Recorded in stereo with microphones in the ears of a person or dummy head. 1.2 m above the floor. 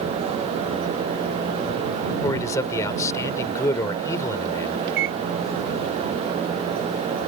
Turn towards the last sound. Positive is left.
turn(degrees=-60)  # may be behind; listen again after turning